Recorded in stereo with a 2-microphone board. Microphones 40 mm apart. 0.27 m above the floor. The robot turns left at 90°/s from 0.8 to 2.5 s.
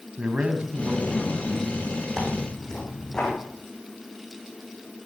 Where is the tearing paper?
160° right, 5.5 m; by 3.3 s 170° left, 5.5 m.